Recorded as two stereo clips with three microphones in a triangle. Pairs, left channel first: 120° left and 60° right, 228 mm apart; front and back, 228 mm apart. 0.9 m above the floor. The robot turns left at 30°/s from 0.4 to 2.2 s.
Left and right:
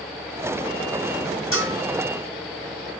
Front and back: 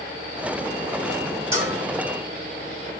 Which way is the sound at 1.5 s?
100° left.